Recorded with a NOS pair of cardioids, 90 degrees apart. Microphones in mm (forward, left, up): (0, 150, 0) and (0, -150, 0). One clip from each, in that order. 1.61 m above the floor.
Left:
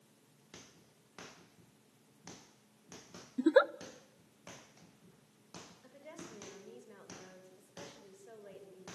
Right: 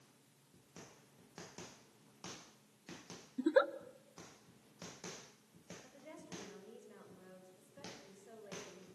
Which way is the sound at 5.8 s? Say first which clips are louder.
Left 3 dB; 30° left.